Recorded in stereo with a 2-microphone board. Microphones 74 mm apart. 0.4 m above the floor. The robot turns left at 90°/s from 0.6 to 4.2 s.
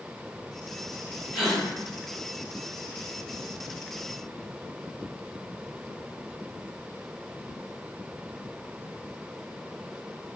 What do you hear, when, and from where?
1.3 s a gasp: 10° right (ahead or behind), 1.0 m; by 1.6 s 10° left (ahead or behind), 1.0 m